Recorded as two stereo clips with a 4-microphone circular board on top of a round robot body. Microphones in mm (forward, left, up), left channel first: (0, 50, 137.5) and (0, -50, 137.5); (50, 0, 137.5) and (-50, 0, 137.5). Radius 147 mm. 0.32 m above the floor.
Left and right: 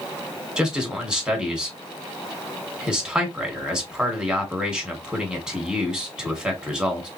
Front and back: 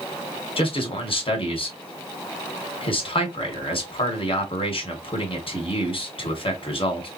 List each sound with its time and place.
0.6 s a man speaking: 10° right, 2.5 m